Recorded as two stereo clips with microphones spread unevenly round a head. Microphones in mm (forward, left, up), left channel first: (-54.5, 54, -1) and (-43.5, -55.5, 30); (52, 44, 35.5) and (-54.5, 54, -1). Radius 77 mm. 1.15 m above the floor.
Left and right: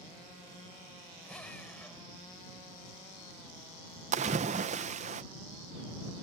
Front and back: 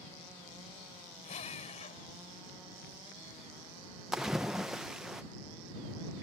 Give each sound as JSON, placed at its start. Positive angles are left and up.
{"t": 1.2, "sound": "a drill", "azimuth_deg": 10}
{"t": 4.1, "sound": "a splash", "azimuth_deg": -105}